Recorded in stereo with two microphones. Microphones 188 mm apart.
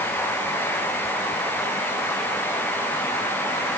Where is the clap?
No clap in this recording.